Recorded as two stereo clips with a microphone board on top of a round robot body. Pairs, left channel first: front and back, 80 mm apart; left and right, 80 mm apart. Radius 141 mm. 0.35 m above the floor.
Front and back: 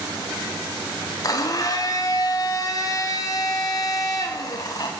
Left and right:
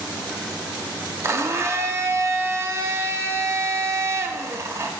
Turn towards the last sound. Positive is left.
turn(degrees=-35)